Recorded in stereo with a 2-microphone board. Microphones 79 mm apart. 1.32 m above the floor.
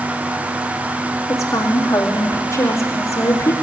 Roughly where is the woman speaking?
Left.